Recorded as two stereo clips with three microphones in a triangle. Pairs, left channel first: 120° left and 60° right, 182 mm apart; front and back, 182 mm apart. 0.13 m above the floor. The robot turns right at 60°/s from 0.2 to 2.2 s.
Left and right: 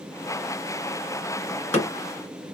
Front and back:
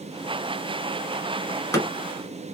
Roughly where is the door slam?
Ahead left.